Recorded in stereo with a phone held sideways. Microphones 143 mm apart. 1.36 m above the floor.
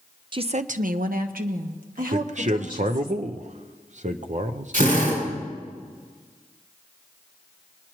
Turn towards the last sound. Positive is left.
turn(degrees=-80)